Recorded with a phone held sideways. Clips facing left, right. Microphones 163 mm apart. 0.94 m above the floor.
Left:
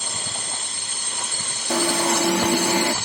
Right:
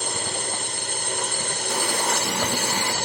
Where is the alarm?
75° left (ahead or behind).